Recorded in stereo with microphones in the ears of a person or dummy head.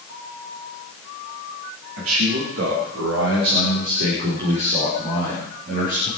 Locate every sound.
2.0 s a man speaking: 90° right, 3.5 m; by 6.1 s 45° right (ahead or behind), 5.5 m